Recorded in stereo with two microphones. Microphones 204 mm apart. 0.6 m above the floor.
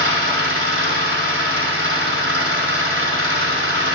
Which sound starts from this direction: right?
An engine running, at 0.0 s.